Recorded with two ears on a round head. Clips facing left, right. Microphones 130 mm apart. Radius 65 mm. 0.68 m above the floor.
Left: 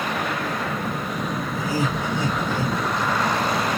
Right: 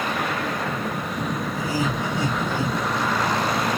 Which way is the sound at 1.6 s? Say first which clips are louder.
Left 2 dB; 25° right (ahead or behind).